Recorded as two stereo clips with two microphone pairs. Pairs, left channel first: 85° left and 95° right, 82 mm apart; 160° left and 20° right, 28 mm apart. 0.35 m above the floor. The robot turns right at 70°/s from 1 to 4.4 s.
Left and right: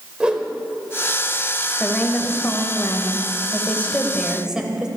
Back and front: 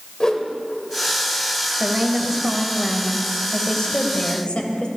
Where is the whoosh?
160° right, 1.2 m.